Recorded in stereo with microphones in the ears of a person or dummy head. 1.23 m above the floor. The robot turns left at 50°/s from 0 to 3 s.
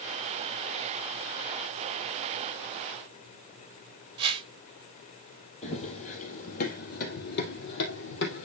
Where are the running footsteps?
35° left (ahead or behind), 2.5 m; by 8.4 s 65° left (ahead or behind), 3 m.